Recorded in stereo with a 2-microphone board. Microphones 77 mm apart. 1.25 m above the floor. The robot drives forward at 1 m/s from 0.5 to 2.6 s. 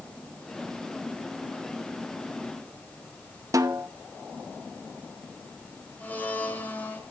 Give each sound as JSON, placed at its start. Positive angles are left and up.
{"t": 3.5, "sound": "a snare drum", "side_deg": -45, "distance_m": 0.8}
{"t": 6.0, "sound": "a blender", "side_deg": 25, "distance_m": 2.0}